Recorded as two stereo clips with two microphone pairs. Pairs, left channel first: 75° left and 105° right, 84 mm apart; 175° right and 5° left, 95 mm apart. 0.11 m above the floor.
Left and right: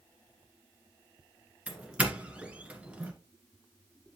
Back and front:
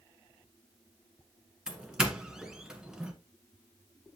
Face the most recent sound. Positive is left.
turn(degrees=-70)